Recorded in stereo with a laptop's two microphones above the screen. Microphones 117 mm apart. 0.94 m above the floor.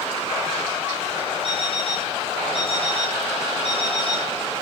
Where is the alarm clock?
55° left (ahead or behind), 7 m.